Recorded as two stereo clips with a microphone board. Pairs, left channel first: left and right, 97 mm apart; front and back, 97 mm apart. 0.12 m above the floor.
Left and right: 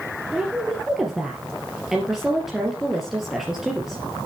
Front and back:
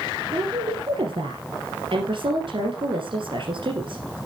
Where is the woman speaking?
175° right, 3 m.